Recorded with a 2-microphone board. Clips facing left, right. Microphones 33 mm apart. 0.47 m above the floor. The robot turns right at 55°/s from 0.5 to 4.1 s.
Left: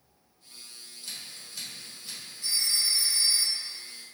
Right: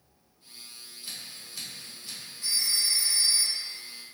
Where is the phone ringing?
105° right, 1.0 m; by 3.8 s 35° right, 1.0 m.